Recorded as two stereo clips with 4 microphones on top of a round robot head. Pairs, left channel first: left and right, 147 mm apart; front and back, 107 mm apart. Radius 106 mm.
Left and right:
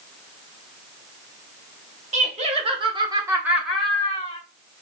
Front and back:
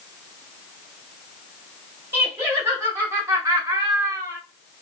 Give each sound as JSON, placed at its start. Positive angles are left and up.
{"t": 2.1, "sound": "laughter", "azimuth_deg": -115, "distance_m": 1.3}